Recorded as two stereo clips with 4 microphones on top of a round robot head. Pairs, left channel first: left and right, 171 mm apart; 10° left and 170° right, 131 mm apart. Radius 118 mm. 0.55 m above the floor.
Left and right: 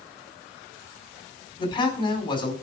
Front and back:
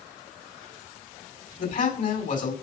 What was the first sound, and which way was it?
A man speaking, 25° left.